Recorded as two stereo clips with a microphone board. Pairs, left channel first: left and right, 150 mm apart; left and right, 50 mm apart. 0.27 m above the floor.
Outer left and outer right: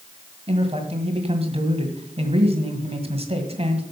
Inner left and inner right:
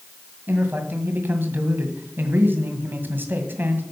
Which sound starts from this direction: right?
A man speaking, at 0.5 s.